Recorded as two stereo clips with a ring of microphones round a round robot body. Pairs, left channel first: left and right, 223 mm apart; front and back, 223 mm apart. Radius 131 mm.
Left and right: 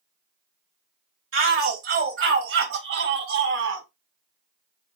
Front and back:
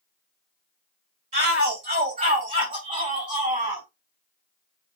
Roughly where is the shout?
Behind right.